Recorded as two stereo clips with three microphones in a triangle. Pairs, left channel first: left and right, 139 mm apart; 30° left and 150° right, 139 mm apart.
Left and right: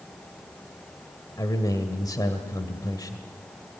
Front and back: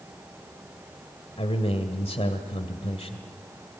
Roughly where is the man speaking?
Ahead left.